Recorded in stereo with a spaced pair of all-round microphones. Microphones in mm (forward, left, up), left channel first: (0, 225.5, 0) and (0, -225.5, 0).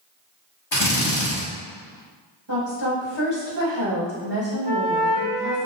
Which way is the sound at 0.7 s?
75° left (ahead or behind).